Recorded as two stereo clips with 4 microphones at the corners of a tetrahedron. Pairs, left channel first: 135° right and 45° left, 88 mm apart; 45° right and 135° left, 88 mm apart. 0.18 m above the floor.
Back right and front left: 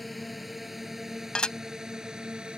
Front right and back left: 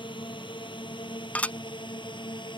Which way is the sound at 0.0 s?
45° right.